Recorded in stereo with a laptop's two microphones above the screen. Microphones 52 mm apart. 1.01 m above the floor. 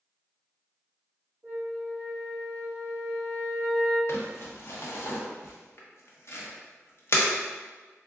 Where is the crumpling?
55° left (ahead or behind), 0.9 m.